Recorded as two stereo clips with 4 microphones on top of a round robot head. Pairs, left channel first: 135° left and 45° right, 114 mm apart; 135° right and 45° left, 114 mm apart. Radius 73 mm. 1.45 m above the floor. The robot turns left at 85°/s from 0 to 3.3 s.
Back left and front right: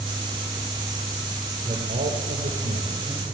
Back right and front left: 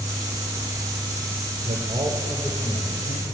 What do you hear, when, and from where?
1.6 s a man speaking: 15° left, 5 m; by 3.2 s 120° right, 5 m